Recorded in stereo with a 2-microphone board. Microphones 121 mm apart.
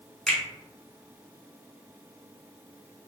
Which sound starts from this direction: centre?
A finger snap, at 0.3 s.